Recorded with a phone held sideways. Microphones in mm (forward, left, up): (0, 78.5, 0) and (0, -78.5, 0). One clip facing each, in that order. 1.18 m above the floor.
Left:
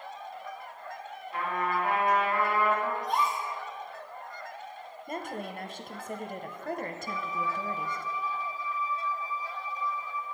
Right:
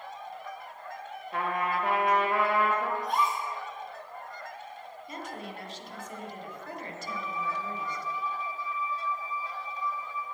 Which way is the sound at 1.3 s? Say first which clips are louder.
Right 1 dB; 60° right (ahead or behind).